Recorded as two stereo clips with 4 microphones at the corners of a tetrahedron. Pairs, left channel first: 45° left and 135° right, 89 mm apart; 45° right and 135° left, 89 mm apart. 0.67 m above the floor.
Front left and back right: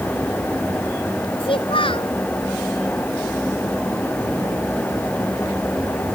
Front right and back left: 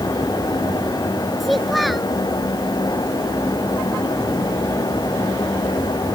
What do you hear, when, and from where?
1.4 s a child speaking: 45° left